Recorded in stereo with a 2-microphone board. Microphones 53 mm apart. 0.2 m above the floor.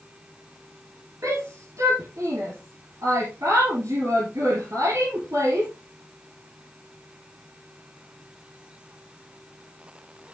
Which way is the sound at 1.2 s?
70° right (ahead or behind).